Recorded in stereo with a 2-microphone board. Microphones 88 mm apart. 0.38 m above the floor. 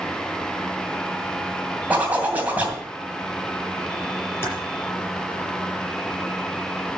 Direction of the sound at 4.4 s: 30° left (ahead or behind).